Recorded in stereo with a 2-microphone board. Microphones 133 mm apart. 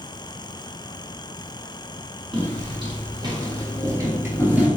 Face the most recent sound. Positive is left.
turn(degrees=-10)  # may be behind; listen again after turning